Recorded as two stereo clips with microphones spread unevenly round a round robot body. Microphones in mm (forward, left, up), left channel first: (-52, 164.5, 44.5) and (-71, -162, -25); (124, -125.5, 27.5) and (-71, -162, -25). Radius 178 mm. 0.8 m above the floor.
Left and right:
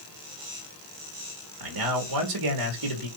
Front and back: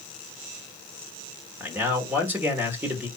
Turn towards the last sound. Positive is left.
turn(degrees=-95)